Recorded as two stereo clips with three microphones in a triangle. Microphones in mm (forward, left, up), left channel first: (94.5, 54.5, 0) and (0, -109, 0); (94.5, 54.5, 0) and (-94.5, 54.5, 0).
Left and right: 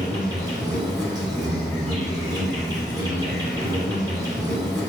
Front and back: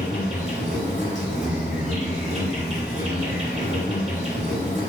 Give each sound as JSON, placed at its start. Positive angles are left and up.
{"t": 0.0, "sound": "an insect", "azimuth_deg": -175, "distance_m": 1.7}